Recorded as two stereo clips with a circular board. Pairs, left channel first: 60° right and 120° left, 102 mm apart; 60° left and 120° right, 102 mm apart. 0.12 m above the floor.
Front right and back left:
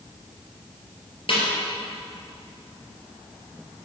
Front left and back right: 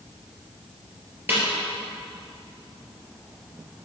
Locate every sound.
1.3 s a snare drum: 55° right, 3 m